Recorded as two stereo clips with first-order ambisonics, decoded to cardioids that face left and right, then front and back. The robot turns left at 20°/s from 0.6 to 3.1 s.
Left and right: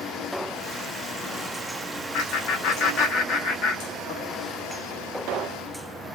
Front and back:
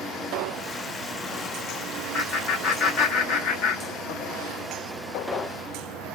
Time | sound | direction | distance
2.1 | laughter | 60° left | 0.8 m